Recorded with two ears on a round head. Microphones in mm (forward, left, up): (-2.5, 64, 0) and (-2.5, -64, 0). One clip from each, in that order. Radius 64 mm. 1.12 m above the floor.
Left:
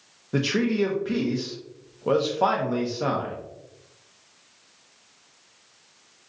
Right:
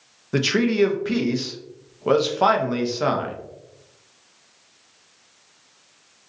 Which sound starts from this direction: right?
A man speaking, at 0.3 s.